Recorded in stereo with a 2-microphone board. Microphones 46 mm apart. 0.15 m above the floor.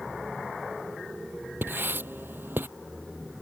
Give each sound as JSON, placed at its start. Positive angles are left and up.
{"t": 1.6, "sound": "writing", "side_deg": -50}